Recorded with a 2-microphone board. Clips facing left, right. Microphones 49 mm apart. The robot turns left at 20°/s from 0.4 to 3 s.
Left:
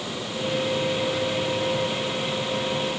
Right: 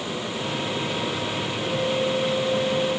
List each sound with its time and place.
Only background noise.